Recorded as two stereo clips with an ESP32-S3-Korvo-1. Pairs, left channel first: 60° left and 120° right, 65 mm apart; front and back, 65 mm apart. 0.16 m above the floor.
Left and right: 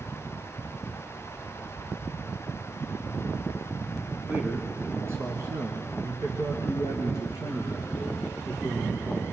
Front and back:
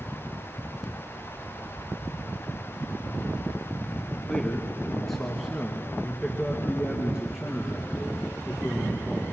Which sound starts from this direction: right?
A man speaking, at 4.3 s.